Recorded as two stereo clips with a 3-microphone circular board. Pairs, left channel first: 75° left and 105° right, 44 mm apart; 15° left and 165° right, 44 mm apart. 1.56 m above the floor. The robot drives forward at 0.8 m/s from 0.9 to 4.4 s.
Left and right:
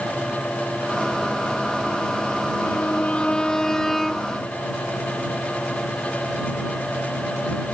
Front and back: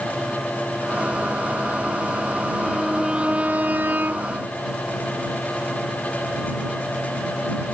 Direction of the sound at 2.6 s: 95° left.